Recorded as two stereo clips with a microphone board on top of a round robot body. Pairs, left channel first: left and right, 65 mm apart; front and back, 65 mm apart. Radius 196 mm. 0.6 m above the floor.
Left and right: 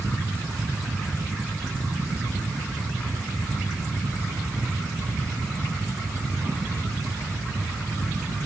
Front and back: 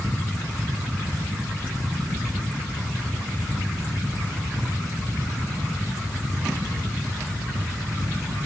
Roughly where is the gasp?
I don't hear a gasp.